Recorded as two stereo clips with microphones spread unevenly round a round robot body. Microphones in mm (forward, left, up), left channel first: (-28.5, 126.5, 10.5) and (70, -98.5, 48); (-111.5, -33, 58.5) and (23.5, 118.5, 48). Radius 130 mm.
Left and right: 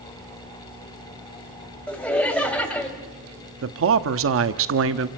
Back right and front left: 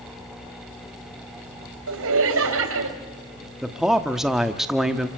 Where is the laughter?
30° left, 4 m.